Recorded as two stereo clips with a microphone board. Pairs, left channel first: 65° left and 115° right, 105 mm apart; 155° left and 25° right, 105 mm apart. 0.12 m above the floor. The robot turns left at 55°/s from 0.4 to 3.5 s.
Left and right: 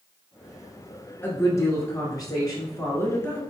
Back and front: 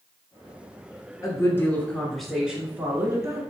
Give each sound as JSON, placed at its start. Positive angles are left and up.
{"t": 1.2, "sound": "a woman speaking", "azimuth_deg": 125, "distance_m": 1.6}